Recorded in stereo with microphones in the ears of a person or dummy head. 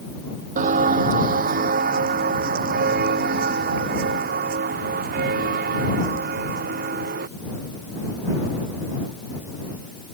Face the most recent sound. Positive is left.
turn(degrees=-55)  # may be behind; listen again after turning